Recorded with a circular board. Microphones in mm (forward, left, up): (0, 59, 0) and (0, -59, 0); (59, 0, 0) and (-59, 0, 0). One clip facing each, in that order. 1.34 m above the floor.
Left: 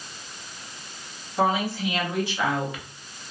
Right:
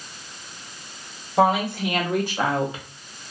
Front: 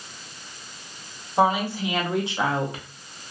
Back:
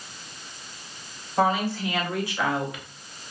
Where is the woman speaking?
75° right, 1.0 m; by 2.9 s 30° right, 0.5 m.